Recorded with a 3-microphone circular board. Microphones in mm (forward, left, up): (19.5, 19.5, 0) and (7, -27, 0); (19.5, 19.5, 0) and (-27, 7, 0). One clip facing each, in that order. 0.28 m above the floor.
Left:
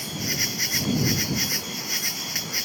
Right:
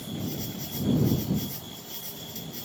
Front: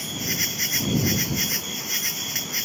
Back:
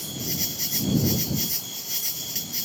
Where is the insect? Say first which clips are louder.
Left 5 dB, front 4 dB; 55° left.